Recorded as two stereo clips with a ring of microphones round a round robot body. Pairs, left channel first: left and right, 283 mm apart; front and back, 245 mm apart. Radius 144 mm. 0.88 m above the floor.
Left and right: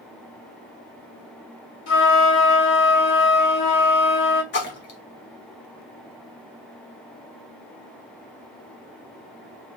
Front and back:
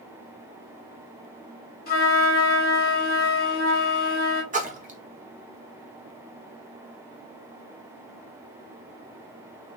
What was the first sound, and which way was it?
A flute, 55° left.